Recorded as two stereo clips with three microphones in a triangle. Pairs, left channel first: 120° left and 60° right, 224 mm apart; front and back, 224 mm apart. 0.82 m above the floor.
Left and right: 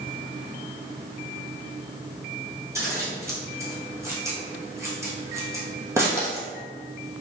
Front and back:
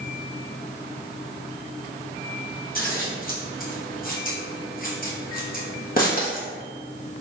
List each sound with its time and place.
2.8 s scissors: 10° left, 1.1 m